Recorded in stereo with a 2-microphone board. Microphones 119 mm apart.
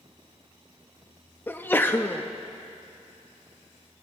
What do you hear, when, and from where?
1.5 s a sneeze: 15° left (ahead or behind), 0.6 m